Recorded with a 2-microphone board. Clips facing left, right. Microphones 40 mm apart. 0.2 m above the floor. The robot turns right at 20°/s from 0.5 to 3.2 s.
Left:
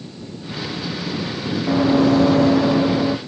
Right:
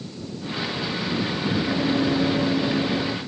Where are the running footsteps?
40° left (ahead or behind); by 3.2 s 55° left (ahead or behind).